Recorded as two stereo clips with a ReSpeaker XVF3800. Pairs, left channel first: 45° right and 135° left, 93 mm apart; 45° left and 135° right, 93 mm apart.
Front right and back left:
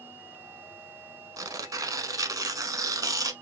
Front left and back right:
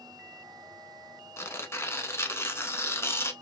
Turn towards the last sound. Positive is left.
turn(degrees=100)